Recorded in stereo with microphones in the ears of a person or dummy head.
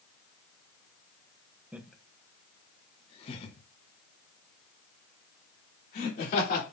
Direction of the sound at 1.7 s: 10° right (ahead or behind).